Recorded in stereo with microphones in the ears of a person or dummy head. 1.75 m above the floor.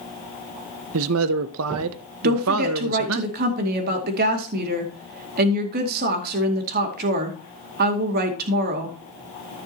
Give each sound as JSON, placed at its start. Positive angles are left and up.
{"t": 0.9, "sound": "a man speaking", "side_deg": -70, "distance_m": 0.6}
{"t": 2.2, "sound": "a woman speaking", "side_deg": -45, "distance_m": 2.0}